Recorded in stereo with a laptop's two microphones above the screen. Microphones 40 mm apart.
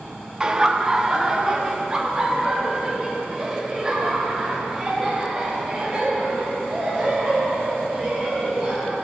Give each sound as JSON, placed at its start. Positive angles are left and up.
{"t": 0.4, "sound": "laughter", "side_deg": -20, "distance_m": 1.2}